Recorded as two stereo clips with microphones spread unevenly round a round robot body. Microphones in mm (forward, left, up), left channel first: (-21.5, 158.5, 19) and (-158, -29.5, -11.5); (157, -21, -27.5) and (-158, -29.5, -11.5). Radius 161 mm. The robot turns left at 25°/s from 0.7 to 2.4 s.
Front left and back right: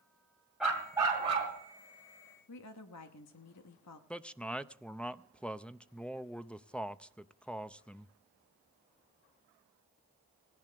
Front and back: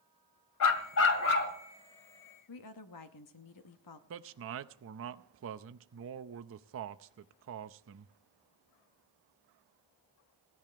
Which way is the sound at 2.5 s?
30° left.